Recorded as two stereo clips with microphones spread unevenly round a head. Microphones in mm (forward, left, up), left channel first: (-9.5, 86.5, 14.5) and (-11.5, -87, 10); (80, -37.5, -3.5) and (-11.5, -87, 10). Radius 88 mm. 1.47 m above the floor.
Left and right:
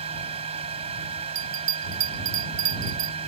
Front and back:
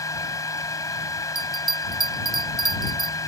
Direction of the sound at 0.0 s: 30° right.